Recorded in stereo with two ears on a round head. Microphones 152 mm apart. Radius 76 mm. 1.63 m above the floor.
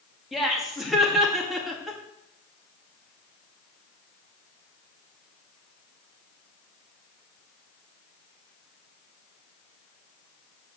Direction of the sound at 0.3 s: Centre (ahead or behind).